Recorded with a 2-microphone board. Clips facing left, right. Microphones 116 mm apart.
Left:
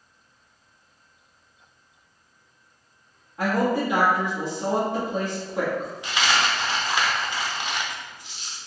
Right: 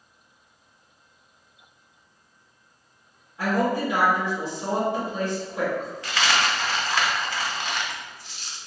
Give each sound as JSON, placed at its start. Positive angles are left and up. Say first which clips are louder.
{"t": 3.4, "sound": "a woman speaking", "louder": "left 1 dB", "side_deg": 60, "distance_m": 1.2}
{"t": 6.0, "sound": "a dropped coin", "louder": "even", "side_deg": 20, "distance_m": 0.7}